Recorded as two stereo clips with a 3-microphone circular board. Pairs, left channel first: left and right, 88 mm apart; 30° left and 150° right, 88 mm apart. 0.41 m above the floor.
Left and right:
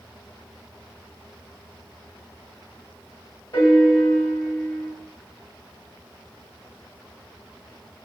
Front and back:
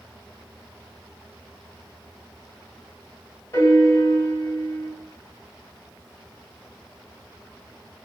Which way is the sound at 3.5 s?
65° left.